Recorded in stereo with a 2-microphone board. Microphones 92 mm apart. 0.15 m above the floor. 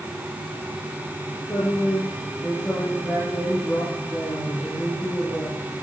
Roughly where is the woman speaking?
Left.